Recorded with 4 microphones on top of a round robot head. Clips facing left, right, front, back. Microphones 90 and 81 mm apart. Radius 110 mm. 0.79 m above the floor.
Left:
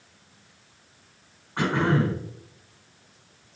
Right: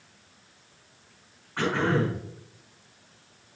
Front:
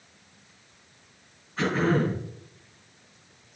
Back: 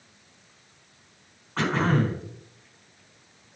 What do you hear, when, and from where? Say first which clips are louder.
1.6 s throat clearing: left 2 dB, even; 165° left, 3.5 m